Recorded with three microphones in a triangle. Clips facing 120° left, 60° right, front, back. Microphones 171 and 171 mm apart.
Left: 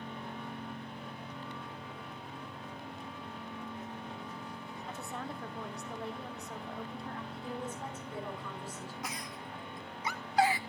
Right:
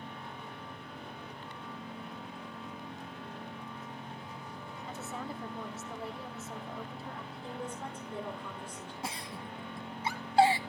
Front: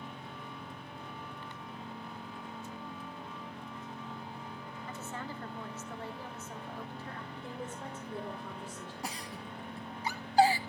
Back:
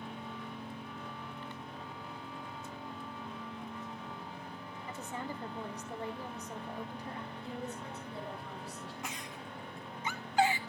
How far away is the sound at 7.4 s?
About 7 m.